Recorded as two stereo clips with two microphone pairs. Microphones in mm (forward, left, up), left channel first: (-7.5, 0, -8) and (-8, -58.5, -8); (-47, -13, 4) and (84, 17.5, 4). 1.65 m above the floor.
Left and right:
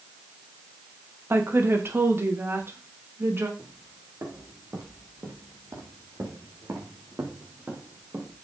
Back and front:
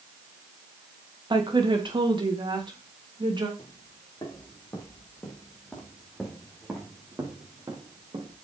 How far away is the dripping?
No dripping in this recording.